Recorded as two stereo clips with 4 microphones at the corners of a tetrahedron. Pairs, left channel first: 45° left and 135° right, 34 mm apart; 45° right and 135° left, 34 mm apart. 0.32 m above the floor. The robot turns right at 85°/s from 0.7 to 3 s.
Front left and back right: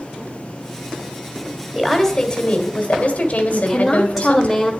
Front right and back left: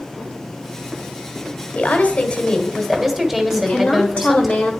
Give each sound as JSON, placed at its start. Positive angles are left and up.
{"t": 1.8, "sound": "a woman speaking", "azimuth_deg": -50, "distance_m": 1.5}
{"t": 3.5, "sound": "a woman speaking", "azimuth_deg": -45, "distance_m": 1.3}